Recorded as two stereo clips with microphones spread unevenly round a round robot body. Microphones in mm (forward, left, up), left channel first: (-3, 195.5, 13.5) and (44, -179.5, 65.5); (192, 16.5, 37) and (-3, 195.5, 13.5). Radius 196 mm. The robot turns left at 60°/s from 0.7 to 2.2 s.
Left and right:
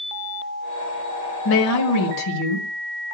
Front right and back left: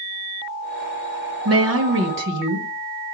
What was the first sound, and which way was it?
A woman speaking, 150° left.